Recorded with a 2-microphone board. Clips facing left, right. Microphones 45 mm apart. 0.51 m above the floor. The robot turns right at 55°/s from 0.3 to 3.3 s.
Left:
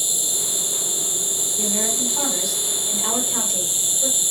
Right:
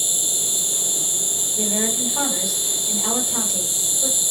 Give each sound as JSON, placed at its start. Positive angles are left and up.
{"t": 0.0, "sound": "an insect", "azimuth_deg": -125, "distance_m": 0.7}
{"t": 1.6, "sound": "a woman speaking", "azimuth_deg": -90, "distance_m": 1.8}